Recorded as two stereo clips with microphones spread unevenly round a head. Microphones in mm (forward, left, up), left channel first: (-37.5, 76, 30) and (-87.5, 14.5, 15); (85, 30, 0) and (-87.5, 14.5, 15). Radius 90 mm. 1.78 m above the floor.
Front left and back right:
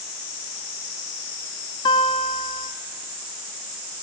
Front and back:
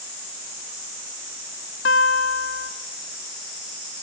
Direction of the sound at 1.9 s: 25° left.